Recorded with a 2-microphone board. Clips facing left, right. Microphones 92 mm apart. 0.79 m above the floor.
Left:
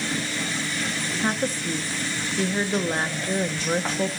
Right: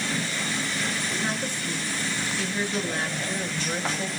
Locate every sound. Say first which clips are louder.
1.2 s a woman speaking: left 4 dB; 35° left (ahead or behind), 1.2 m